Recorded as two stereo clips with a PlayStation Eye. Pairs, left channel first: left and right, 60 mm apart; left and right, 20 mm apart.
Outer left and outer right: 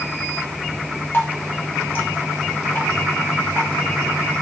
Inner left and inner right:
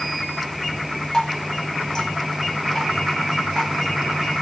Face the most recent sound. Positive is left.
turn(degrees=30)  # may be behind; listen again after turning